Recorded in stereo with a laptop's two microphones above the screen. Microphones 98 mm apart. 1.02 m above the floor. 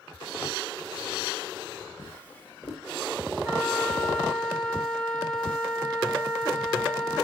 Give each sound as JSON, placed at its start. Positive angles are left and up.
{"t": 2.0, "sound": "a drawer", "side_deg": 20, "distance_m": 1.0}
{"t": 3.4, "sound": "a flute", "side_deg": 60, "distance_m": 3.5}